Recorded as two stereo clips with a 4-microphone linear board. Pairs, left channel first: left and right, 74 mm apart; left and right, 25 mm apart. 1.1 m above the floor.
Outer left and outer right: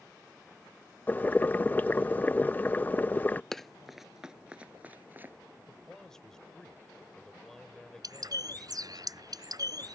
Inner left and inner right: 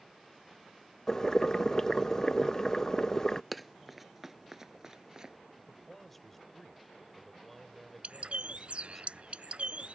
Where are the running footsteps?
5° left (ahead or behind); by 5.3 s 30° right (ahead or behind).